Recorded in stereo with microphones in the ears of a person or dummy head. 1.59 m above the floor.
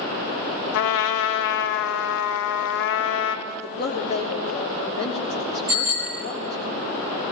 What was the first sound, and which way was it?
A trumpet, 70° left (ahead or behind).